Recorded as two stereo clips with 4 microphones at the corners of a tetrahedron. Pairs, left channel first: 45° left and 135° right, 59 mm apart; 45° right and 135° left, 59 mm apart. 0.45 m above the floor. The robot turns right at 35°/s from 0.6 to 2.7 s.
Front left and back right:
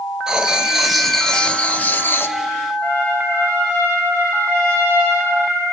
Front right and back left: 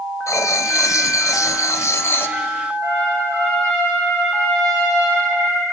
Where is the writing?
60° right, 1.0 m; by 2.4 s 5° left, 1.0 m.